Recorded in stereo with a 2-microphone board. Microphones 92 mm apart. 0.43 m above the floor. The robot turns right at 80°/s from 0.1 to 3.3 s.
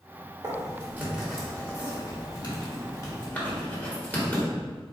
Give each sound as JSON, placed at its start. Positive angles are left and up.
{"t": 0.4, "sound": "writing", "side_deg": -45, "distance_m": 1.3}